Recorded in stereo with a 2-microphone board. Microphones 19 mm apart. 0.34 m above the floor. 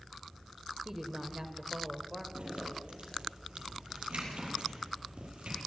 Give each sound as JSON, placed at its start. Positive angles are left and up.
{"t": 0.8, "sound": "a woman speaking", "side_deg": -25, "distance_m": 1.5}
{"t": 2.4, "sound": "a zipper", "side_deg": -75, "distance_m": 8.0}